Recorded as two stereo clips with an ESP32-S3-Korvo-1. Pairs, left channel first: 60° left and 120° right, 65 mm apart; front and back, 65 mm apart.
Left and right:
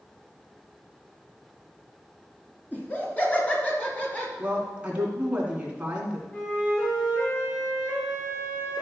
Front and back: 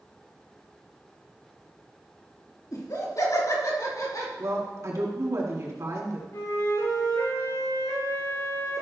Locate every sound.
2.7 s laughter: straight ahead, 2.5 m; by 4.3 s 5° right, 3 m
4.4 s a woman speaking: 175° left, 2.5 m
6.3 s a flute: straight ahead, 4.5 m